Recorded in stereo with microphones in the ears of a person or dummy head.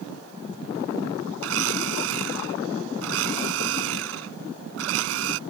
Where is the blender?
85° right.